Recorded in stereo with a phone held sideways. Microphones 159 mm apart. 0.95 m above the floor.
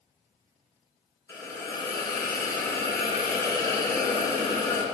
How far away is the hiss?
About 2.5 m.